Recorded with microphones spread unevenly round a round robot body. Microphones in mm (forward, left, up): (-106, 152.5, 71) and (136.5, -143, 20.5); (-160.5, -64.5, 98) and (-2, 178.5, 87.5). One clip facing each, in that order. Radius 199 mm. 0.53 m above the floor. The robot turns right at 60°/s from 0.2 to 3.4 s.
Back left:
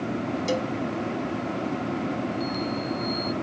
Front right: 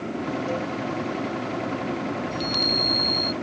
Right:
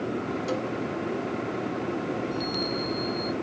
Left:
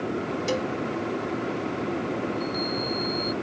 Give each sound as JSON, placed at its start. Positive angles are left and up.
{"t": 0.5, "sound": "a cowbell", "azimuth_deg": 105}
{"t": 2.3, "sound": "a chime", "azimuth_deg": -85}